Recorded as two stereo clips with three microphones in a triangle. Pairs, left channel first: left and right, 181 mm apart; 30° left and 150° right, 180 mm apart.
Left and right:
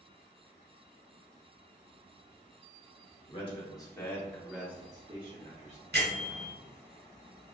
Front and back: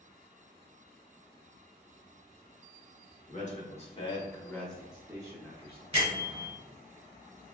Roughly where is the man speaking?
Ahead left.